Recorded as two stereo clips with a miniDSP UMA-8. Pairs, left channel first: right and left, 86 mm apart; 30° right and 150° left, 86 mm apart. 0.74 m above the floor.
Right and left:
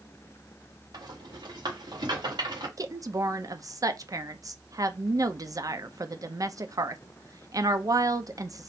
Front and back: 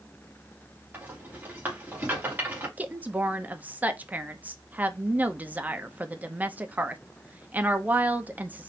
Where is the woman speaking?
90° left, 0.6 m.